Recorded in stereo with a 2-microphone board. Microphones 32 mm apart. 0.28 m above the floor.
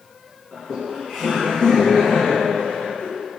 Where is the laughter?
10° left (ahead or behind), 3.5 m; by 3.1 s 35° left (ahead or behind), 2.5 m.